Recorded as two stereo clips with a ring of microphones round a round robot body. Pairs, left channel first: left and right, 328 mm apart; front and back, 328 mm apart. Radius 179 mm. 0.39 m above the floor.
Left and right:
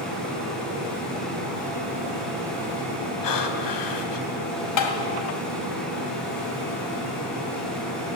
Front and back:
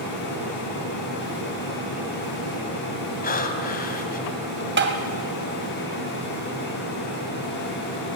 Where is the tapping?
125° left, 2.5 m.